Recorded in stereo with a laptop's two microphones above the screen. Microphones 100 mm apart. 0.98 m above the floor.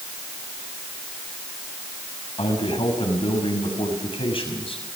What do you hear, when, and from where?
2.4 s a man speaking: 60° left (ahead or behind), 6 m